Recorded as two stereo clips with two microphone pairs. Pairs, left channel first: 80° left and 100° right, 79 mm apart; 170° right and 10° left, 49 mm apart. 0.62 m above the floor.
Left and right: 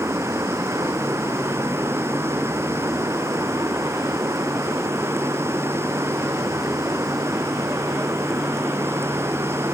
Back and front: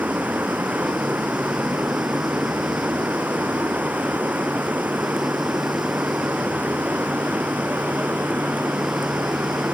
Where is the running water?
45° right.